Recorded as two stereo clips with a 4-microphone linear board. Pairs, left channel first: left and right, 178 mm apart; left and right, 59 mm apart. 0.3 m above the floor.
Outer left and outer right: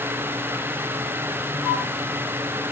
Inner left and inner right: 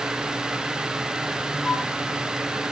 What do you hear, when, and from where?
1.6 s a flute: centre (ahead or behind), 3.5 m